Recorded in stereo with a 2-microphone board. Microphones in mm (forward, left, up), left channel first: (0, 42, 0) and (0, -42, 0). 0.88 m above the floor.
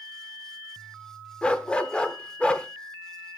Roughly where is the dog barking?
Centre.